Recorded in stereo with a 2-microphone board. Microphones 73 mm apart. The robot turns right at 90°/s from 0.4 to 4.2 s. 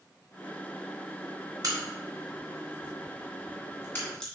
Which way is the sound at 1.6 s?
60° right (ahead or behind).